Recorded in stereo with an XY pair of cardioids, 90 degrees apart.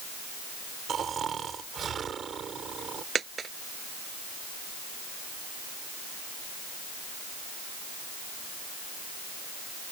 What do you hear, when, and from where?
0.9 s snoring: 55° right
3.1 s a dropped coin: 50° right